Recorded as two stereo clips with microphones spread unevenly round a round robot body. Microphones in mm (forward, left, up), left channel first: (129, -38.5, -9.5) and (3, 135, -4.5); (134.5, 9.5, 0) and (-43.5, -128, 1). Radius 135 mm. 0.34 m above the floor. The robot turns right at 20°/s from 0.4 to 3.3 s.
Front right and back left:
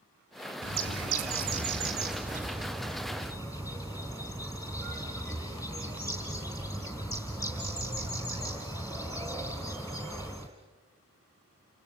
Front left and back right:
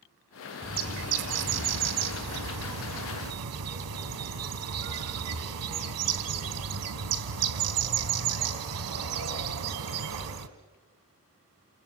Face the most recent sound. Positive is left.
turn(degrees=-135)